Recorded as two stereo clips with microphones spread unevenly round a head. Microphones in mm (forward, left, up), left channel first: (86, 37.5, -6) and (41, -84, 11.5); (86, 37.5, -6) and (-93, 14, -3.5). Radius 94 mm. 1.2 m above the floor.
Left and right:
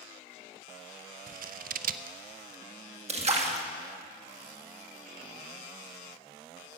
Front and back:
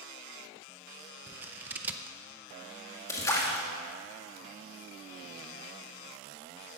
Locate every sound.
1.3 s scissors: 90° right, 0.6 m
3.1 s a splash: 70° right, 1.9 m